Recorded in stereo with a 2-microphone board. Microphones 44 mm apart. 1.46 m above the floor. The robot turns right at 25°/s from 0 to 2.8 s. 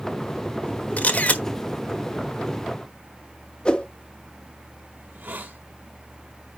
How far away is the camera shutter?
About 1.3 m.